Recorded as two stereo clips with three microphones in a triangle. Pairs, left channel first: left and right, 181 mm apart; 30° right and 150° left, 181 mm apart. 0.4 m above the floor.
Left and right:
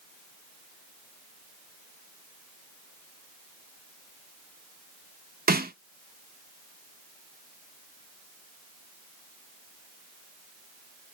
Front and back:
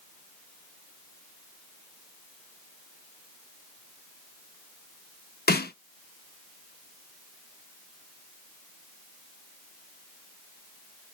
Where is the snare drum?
55° right, 0.5 m.